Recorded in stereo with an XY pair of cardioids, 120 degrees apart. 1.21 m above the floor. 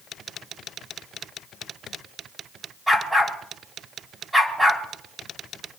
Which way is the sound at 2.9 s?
10° right.